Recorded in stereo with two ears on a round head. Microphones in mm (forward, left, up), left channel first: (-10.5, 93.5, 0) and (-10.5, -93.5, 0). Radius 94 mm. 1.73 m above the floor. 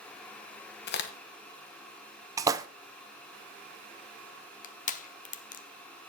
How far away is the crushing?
About 0.8 m.